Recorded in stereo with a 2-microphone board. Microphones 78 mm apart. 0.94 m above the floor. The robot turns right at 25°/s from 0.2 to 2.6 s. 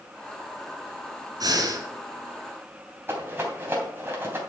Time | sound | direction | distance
1.4 | breathing | 55° right (ahead or behind) | 2.0 m
3.1 | a rattle | 25° right (ahead or behind) | 3 m